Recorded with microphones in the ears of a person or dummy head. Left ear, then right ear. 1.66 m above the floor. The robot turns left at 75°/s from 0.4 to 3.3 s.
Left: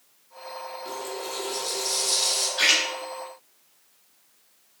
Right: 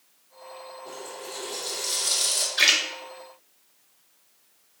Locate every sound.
0.8 s a running tap: 45° left, 1.4 m; by 2.5 s 75° right, 1.4 m
2.6 s a splash: 20° right (ahead or behind), 0.9 m; by 2.8 s 40° right (ahead or behind), 0.9 m